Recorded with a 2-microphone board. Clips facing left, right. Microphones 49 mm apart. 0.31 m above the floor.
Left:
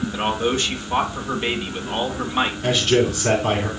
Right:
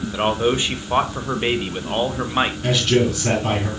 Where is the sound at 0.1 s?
20° right (ahead or behind), 0.9 m.